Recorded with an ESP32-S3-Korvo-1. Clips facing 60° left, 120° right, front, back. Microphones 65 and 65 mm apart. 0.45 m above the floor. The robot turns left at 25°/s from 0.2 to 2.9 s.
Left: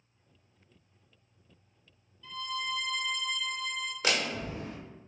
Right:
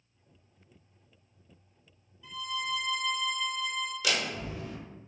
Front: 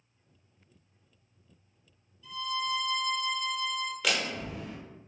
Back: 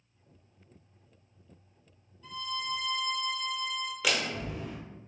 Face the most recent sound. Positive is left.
turn(degrees=95)